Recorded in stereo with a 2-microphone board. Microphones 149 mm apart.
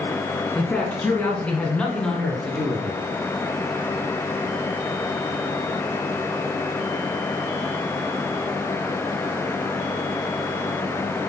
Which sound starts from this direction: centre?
A man speaking, at 0.6 s.